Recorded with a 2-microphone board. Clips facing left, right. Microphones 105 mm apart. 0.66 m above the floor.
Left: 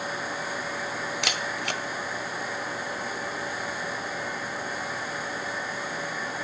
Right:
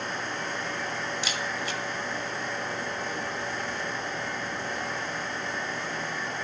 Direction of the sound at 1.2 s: 70° left (ahead or behind).